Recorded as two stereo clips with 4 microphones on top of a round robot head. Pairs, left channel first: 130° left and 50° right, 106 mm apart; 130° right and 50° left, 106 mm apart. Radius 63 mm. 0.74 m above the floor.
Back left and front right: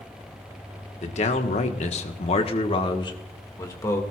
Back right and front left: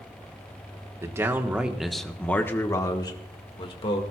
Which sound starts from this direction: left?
A man speaking, at 1.0 s.